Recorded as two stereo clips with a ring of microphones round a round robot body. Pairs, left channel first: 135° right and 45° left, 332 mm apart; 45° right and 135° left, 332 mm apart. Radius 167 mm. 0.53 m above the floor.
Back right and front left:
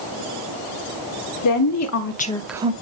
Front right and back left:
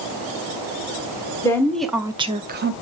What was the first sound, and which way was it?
A woman speaking, 125° right.